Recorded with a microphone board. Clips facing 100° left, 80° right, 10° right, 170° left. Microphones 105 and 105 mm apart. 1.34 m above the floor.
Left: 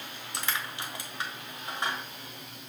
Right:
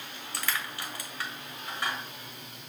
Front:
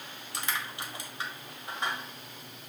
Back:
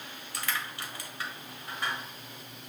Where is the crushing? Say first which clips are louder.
Even, even; 40° left, 1.4 m.